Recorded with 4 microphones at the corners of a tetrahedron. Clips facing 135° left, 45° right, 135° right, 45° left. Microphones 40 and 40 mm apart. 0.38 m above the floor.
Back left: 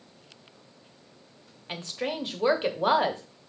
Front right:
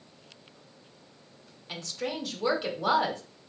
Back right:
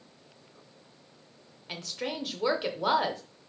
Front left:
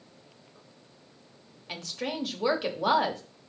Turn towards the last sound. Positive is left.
turn(degrees=140)